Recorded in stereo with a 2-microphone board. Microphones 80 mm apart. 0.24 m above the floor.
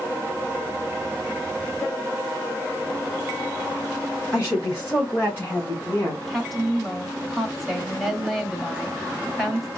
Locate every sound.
4.3 s a woman speaking: 30° left (ahead or behind), 3.5 m; by 6.2 s 20° left (ahead or behind), 2 m
6.3 s a woman speaking: centre (ahead or behind), 1.0 m